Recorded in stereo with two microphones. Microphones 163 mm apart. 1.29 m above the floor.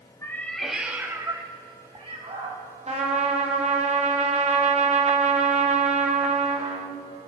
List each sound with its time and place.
0.2 s a cat meowing: 15° left (ahead or behind), 1.1 m; by 2.6 s 45° right (ahead or behind), 2 m
2.9 s a trumpet: 45° right (ahead or behind), 1.3 m